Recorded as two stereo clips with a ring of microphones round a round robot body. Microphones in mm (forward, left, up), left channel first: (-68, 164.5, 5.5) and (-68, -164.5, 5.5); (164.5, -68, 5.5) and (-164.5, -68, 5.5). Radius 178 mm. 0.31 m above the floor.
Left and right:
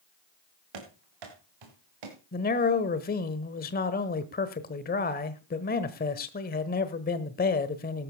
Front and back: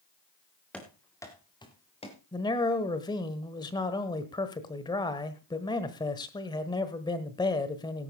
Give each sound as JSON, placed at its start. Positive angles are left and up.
{"t": 0.7, "sound": "running footsteps", "azimuth_deg": -85, "distance_m": 3.5}
{"t": 2.3, "sound": "a man speaking", "azimuth_deg": 65, "distance_m": 1.2}